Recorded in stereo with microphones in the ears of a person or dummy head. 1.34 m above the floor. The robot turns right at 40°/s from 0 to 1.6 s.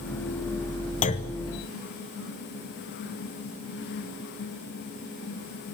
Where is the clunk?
40° left (ahead or behind), 0.9 m; by 1.4 s 30° left (ahead or behind), 0.9 m.